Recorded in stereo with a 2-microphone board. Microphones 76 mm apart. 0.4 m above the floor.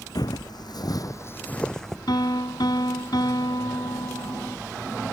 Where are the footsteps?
65° left (ahead or behind); by 2.0 s centre (ahead or behind).